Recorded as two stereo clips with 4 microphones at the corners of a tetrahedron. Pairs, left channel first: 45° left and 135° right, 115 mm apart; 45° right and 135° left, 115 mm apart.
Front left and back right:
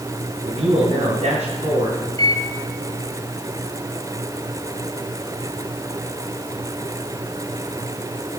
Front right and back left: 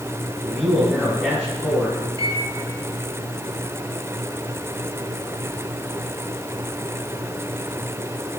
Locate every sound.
0.5 s a man speaking: 130° right, 3 m
2.2 s a microwave: 90° left, 1.3 m